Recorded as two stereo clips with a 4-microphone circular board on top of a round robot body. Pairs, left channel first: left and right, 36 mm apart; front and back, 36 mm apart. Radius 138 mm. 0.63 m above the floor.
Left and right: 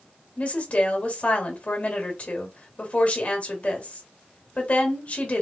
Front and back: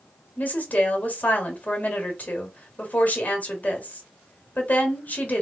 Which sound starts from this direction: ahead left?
A woman speaking, at 0.4 s.